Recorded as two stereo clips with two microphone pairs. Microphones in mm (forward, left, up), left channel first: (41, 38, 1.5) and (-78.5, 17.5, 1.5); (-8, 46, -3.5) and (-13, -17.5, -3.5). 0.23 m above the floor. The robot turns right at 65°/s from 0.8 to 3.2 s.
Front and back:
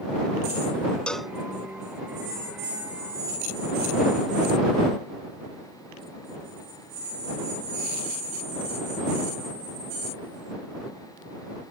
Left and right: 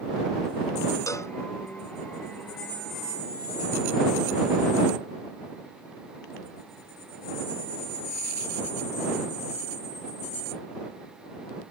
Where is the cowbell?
90° left; by 1.4 s 110° left.